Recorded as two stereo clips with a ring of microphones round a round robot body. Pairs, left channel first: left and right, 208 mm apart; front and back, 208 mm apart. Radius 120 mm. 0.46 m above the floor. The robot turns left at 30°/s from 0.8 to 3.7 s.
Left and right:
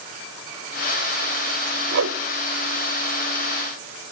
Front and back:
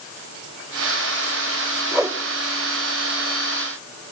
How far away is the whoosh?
About 1.0 m.